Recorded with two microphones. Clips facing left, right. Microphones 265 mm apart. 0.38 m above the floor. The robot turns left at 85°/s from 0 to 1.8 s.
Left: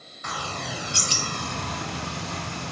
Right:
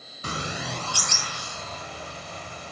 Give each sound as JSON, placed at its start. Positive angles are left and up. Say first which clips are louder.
{"t": 0.2, "sound": "a bird", "louder": "right 2 dB", "azimuth_deg": -145, "distance_m": 0.8}